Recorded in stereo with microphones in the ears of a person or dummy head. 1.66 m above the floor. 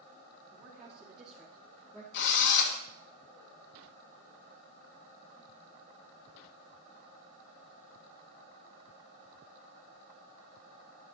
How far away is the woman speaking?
About 3 m.